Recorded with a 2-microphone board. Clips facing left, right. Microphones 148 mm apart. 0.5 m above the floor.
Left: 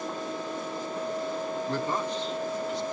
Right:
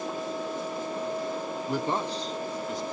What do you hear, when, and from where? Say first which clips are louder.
1.7 s a man speaking: right 3 dB; 5° right (ahead or behind), 0.8 m; by 2.8 s 45° right (ahead or behind), 1.7 m